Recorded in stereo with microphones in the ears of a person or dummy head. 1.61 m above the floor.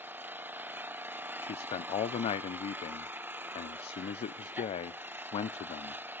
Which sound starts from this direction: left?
A man speaking, at 1.4 s.